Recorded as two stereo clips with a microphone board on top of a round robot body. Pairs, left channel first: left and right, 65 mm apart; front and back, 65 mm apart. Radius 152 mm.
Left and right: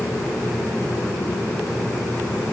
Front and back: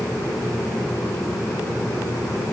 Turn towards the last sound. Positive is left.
No sound to turn to.